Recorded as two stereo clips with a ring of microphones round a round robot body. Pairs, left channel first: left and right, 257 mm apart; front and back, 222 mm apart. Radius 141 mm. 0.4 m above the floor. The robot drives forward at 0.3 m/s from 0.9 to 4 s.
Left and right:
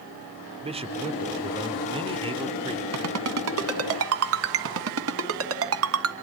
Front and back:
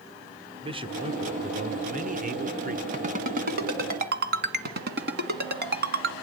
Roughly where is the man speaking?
Behind right.